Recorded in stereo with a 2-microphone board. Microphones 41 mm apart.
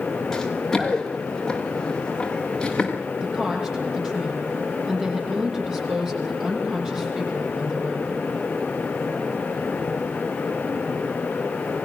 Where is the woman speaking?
20° right (ahead or behind), 10 m.